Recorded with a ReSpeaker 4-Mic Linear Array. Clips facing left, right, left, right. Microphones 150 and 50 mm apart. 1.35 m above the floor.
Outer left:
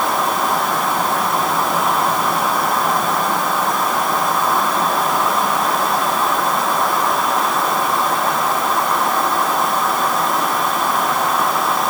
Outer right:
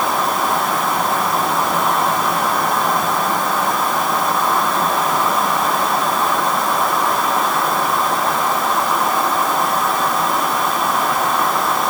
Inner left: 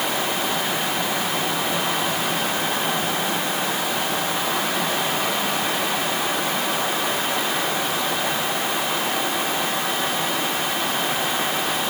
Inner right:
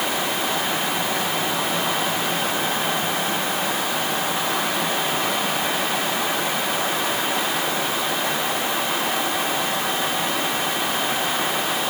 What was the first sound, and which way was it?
Only background noise.